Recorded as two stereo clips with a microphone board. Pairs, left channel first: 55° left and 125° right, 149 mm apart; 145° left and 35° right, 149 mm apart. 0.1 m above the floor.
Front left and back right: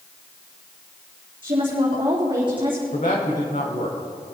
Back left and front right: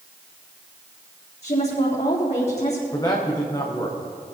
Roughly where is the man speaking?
Left.